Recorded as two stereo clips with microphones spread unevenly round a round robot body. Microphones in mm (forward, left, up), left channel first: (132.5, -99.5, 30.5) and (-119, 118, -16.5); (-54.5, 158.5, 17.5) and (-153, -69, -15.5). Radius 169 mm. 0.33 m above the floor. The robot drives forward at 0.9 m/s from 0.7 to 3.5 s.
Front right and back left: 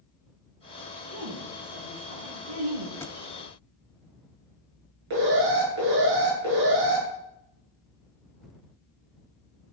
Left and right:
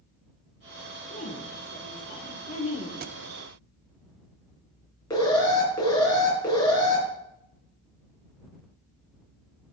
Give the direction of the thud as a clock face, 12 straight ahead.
4 o'clock.